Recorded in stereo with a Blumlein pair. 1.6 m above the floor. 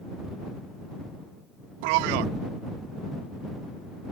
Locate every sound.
1.8 s a man speaking: 45° right